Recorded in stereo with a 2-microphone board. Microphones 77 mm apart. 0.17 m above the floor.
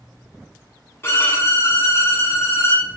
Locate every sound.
1.0 s a violin: 35° left (ahead or behind), 0.8 m